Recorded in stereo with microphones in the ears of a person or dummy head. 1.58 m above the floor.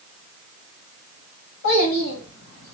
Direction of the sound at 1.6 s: 75° left (ahead or behind).